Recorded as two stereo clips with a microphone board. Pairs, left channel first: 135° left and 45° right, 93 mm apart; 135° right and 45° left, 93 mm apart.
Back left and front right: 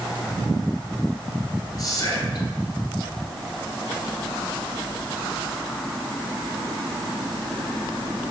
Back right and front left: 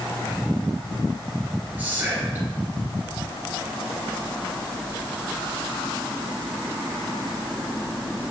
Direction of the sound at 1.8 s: 110° left.